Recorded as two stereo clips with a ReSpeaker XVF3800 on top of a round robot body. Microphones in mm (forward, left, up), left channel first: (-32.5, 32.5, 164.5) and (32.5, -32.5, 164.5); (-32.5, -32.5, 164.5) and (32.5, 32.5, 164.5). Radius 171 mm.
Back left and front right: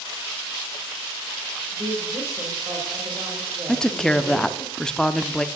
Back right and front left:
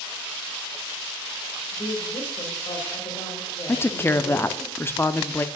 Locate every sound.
1.7 s a woman speaking: 105° right, 2.5 m
3.7 s a woman speaking: 155° right, 0.9 m